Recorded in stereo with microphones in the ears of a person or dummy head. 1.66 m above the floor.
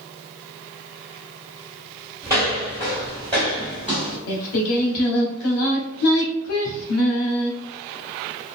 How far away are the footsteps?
About 1.8 m.